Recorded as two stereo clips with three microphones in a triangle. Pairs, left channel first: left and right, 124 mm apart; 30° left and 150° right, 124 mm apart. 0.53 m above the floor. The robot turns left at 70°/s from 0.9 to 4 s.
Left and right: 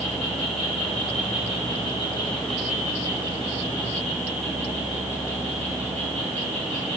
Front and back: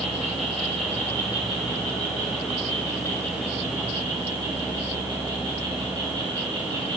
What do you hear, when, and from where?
0.0 s an insect: 115° left, 4.5 m; by 7.0 s 100° right, 4.5 m